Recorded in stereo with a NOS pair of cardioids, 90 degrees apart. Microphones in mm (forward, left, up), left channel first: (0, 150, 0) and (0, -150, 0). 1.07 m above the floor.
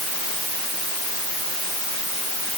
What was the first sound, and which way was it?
Only background noise.